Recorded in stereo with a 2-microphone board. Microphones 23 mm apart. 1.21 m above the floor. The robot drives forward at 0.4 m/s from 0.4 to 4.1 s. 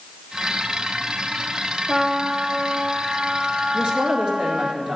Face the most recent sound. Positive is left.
turn(degrees=-40)  # may be behind; listen again after turning